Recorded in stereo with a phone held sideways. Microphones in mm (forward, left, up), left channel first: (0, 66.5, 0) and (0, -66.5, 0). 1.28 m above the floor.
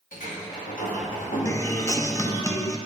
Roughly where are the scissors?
I don't hear scissors.